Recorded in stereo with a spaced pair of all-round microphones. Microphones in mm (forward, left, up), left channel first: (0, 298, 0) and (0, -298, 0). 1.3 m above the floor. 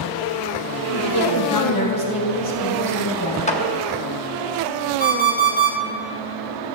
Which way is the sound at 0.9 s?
40° left (ahead or behind).